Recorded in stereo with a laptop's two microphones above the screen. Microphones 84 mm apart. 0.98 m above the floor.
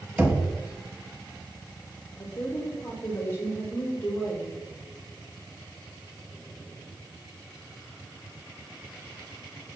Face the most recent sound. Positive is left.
turn(degrees=30)  # may be behind; listen again after turning